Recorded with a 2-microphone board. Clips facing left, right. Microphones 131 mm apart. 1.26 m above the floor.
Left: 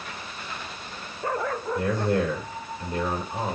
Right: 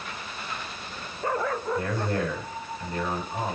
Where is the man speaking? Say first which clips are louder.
Left 4 dB; 30° left (ahead or behind), 5 m.